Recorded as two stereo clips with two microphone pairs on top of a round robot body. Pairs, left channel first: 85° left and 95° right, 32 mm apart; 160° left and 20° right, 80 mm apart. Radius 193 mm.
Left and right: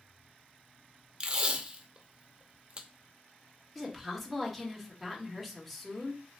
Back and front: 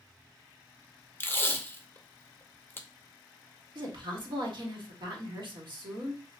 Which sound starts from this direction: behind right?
Tape being pulled, at 1.2 s.